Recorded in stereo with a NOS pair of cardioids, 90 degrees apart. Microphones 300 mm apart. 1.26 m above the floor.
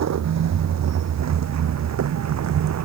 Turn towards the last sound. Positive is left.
turn(degrees=-60)